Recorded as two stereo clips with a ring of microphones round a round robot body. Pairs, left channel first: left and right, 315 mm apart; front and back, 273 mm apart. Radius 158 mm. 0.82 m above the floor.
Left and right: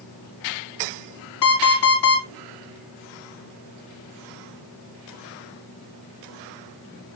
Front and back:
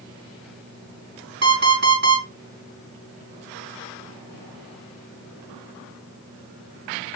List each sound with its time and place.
1.4 s an alarm clock: 130° left, 4.5 m